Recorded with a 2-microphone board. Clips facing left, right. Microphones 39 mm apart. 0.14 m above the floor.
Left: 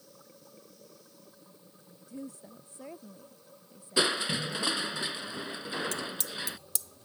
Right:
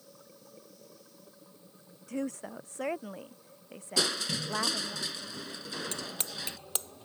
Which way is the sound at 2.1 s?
80° right.